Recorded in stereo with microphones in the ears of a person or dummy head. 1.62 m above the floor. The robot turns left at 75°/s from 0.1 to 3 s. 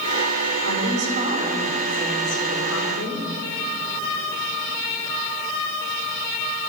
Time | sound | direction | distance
0.6 | a woman speaking | 100° right | 6.5 m